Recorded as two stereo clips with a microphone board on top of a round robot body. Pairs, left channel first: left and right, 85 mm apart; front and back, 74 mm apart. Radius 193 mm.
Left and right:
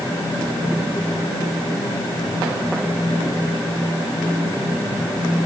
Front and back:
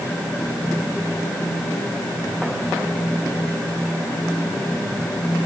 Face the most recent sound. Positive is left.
No sound to turn to.